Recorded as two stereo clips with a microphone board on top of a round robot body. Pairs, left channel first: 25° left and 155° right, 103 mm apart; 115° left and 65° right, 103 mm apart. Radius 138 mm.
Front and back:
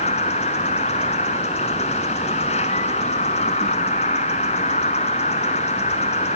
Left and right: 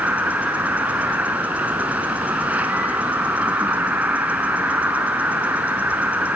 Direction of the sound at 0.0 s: 10° left.